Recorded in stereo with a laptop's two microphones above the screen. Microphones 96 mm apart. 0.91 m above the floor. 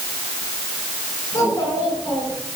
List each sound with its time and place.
1.3 s a child speaking: 25° left (ahead or behind), 8.5 m